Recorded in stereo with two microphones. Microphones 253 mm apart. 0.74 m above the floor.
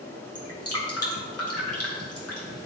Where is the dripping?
65° left (ahead or behind), 2 m.